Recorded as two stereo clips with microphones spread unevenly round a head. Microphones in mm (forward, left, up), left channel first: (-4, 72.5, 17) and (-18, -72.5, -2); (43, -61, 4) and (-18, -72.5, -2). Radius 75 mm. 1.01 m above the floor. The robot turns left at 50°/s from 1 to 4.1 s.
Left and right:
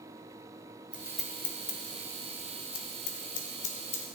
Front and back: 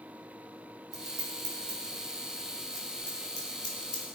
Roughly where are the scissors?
Behind.